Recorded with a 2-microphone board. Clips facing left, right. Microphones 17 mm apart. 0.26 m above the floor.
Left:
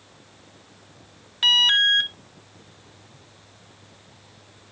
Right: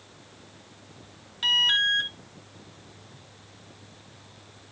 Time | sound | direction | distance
1.4 | an alarm | 30° left (ahead or behind) | 0.7 m